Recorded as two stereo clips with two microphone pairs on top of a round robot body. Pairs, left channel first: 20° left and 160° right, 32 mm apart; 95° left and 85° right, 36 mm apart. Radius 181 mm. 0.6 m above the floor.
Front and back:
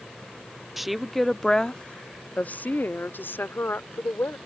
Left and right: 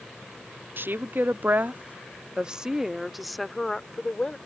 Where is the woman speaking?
75° right; by 4.4 s 25° left.